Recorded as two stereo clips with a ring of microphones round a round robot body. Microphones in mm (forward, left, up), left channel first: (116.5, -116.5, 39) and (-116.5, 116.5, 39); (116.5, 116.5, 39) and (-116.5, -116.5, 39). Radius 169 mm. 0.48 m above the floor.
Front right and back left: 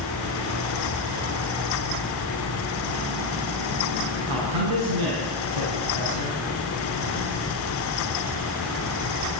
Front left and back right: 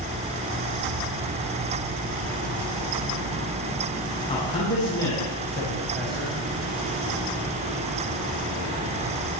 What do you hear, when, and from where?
4.3 s a man speaking: 120° left, 6.5 m; by 6.4 s 135° left, 5 m